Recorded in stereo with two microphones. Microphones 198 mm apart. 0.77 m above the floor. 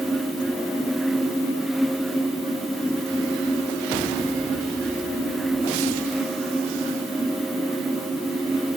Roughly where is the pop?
No pop in this recording.